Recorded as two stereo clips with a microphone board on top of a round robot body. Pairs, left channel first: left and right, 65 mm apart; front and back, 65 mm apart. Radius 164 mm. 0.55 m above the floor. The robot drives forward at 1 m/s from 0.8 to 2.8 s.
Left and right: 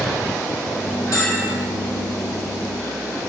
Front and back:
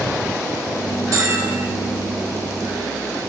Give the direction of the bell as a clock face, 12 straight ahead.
8 o'clock.